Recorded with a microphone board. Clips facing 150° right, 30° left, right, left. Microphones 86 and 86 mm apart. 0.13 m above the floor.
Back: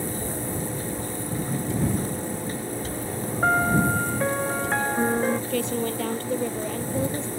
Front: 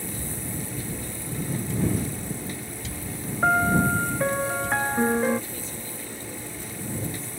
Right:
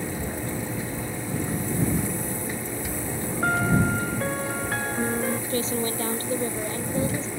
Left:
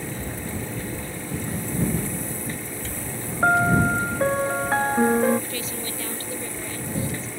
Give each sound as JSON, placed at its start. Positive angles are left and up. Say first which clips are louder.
{"t": 3.4, "sound": "a piano", "louder": "even, left 5 dB", "azimuth_deg": 115}
{"t": 5.5, "sound": "a woman speaking", "louder": "back 12 dB, right 6 dB", "azimuth_deg": -145}